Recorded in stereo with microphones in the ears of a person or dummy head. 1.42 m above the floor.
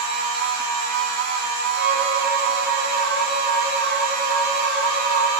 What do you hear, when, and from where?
0.0 s a machine running: 70° right (ahead or behind), 2.5 m
1.8 s a violin: 10° right (ahead or behind), 2 m